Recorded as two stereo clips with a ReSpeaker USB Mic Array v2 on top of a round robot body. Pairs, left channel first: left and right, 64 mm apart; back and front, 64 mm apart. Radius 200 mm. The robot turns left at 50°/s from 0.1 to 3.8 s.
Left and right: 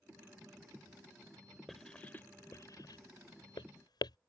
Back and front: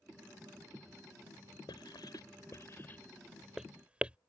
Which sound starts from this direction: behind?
Writing, at 1.7 s.